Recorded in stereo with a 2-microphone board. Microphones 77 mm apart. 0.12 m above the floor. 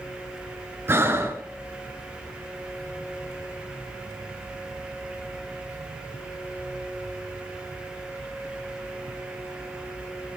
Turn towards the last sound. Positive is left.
turn(degrees=-30)  # may be behind; listen again after turning